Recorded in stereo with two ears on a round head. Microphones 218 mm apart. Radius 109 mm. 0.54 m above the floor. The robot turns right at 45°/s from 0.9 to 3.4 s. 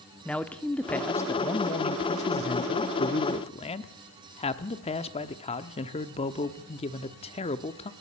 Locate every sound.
0.2 s a man speaking: 10° left, 1.0 m; by 7.9 s 120° left, 1.0 m